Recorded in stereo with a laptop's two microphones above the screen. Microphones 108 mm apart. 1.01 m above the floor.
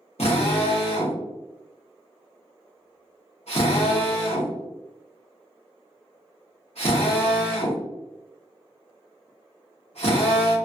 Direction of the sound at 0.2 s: 85° left.